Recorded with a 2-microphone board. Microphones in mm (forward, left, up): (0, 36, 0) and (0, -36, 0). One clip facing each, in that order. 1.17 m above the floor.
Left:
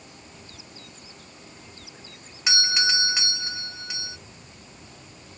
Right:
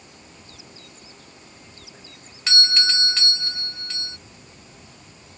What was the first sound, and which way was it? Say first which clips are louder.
A doorbell: even; 15° left (ahead or behind).